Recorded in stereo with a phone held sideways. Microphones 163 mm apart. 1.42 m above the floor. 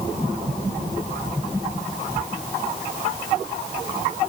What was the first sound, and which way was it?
Only background noise.